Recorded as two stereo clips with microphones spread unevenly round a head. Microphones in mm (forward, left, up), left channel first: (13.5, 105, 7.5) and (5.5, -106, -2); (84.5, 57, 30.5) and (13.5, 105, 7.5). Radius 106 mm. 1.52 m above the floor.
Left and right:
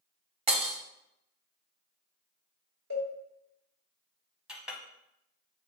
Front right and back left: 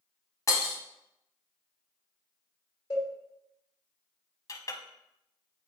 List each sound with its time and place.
0.5 s breaking glass: 35° right, 1.4 m
2.9 s a cowbell: 75° right, 3 m
4.5 s a clink: 5° right, 0.8 m